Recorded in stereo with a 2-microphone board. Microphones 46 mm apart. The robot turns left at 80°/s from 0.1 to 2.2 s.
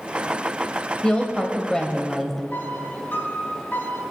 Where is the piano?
40° left (ahead or behind), 4.5 m.